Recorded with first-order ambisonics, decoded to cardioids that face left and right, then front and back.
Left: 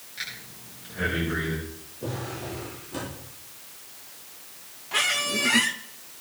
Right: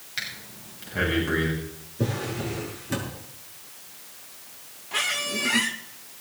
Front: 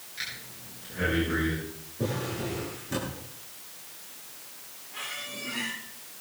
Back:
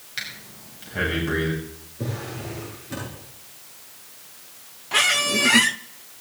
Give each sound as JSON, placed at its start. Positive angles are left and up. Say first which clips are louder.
{"t": 0.2, "sound": "breathing", "louder": "right 3 dB, back 4 dB", "azimuth_deg": -140, "distance_m": 6.5}
{"t": 2.0, "sound": "a drawer", "louder": "right 4 dB, front 1 dB", "azimuth_deg": -90, "distance_m": 8.0}
{"t": 4.9, "sound": "a squeak", "louder": "left 2 dB, back 17 dB", "azimuth_deg": 175, "distance_m": 0.6}